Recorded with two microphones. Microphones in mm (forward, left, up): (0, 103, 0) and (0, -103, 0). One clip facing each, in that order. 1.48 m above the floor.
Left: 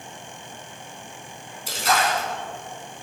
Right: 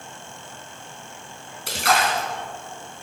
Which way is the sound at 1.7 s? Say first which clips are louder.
Right 1 dB; 75° right (ahead or behind).